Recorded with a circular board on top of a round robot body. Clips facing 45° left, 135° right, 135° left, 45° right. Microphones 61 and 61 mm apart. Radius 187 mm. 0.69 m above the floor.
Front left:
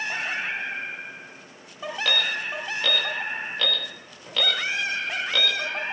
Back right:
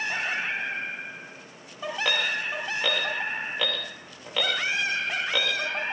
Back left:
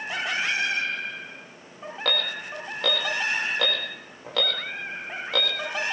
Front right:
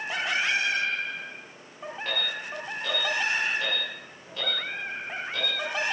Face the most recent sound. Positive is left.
turn(degrees=150)